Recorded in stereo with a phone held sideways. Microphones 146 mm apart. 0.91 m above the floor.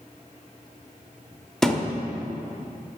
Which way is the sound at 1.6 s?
5° left (ahead or behind).